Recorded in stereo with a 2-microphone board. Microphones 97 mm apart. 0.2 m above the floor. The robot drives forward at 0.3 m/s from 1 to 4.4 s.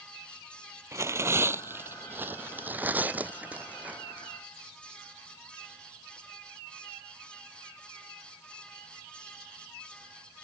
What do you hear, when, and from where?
0.9 s tearing paper: 30° right (ahead or behind); by 4.3 s 15° right (ahead or behind)